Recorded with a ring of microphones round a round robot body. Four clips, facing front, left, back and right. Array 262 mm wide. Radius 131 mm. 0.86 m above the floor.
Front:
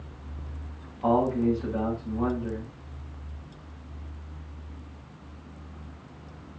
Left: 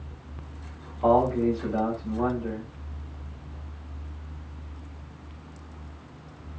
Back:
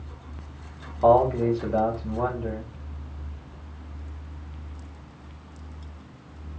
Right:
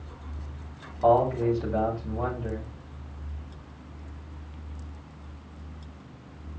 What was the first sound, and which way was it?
A man speaking, 175° right.